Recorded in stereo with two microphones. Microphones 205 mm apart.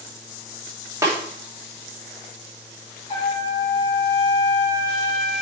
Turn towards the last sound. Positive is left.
turn(degrees=30)  # may be behind; listen again after turning